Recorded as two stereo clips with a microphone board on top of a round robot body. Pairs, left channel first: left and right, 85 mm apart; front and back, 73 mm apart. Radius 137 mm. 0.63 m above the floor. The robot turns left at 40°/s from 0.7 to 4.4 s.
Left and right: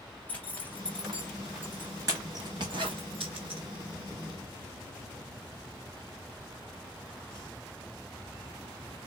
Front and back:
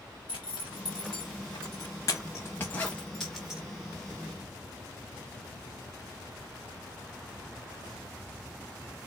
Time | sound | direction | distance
0.3 | a zipper | 15° left | 0.6 m